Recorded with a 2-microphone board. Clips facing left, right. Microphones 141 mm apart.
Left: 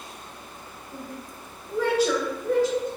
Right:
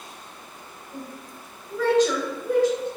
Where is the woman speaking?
35° left (ahead or behind), 1.8 m; by 2.9 s 25° right (ahead or behind), 1.2 m.